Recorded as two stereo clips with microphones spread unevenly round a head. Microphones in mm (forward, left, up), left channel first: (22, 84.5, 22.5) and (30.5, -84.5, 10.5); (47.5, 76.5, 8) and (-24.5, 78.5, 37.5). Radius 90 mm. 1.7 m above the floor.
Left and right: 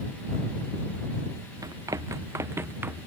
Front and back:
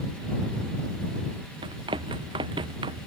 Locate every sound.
1.6 s running footsteps: 160° right; by 3.1 s 170° right